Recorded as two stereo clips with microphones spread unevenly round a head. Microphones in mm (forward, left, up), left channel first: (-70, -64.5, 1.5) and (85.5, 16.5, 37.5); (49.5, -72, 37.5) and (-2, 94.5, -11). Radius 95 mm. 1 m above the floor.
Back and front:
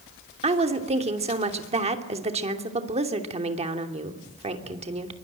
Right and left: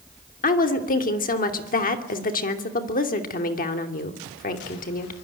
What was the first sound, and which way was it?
A woman speaking, 30° right.